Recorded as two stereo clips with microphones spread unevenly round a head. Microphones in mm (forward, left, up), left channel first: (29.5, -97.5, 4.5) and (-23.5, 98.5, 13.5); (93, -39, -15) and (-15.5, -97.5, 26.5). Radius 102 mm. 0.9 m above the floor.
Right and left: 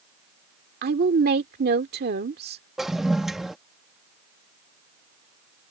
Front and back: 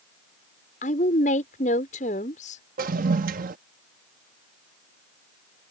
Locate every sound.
0.8 s a woman speaking: 65° left
2.8 s a toilet flushing: 165° right